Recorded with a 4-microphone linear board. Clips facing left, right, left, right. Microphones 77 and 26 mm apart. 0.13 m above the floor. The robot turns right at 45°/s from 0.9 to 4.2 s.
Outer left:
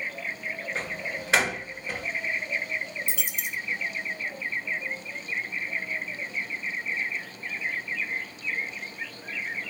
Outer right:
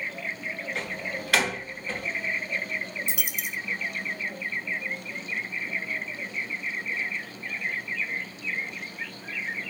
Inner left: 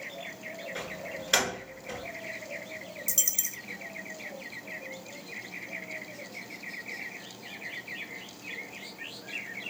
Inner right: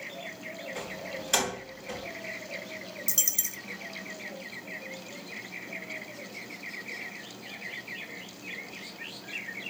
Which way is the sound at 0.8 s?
35° left (ahead or behind).